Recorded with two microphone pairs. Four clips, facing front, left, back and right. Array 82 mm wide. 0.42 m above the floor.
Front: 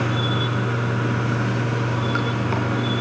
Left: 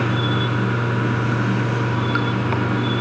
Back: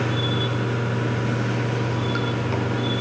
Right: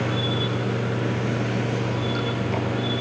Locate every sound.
0.0 s running water: 60° left, 3.5 m